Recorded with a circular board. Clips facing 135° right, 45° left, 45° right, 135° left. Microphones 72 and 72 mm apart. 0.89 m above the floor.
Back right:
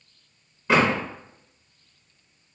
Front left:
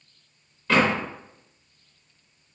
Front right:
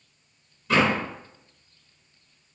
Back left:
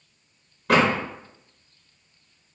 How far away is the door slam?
About 0.7 m.